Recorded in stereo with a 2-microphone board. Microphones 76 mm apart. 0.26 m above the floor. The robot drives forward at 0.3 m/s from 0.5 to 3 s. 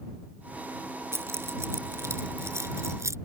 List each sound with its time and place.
1.1 s keys jangling: 35° right (ahead or behind); by 3.2 s 40° right (ahead or behind)